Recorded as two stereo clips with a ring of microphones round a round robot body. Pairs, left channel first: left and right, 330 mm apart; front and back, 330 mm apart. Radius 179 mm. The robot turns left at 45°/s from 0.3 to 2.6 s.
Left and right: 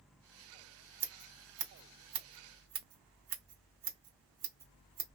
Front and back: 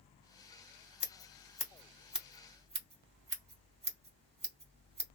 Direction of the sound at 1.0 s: 40° right.